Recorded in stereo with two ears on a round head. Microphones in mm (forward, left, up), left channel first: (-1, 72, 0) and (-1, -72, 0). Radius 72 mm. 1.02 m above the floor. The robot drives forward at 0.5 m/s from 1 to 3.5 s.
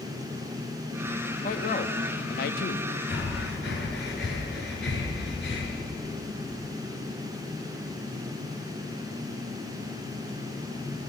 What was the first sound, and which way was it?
A man speaking, 45° left (ahead or behind).